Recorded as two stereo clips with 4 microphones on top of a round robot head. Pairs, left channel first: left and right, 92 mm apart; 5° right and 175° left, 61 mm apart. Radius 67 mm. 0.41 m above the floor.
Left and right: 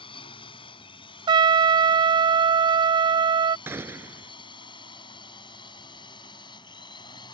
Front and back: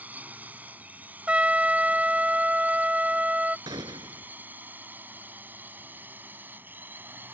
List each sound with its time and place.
0.0 s a drone: 115° left; by 7.3 s 125° left
1.3 s a trumpet: 115° right
3.7 s a gunshot: 155° right